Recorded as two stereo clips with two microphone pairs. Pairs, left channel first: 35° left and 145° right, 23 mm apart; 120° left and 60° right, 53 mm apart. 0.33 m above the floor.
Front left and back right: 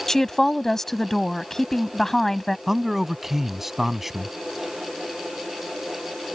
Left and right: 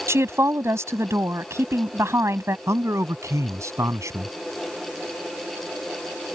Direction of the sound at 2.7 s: 75° right.